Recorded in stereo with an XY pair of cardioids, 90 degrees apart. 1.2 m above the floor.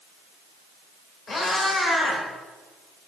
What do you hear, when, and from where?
1.3 s a cat meowing: 65° left, 2 m